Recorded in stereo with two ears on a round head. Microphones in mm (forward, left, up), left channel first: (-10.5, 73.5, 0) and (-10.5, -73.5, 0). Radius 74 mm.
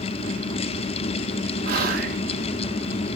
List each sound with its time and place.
1.6 s whispering: 50° right (ahead or behind), 0.9 m